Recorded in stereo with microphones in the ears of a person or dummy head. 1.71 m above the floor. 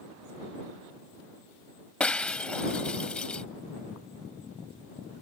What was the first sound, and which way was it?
Breaking glass, 10° left (ahead or behind).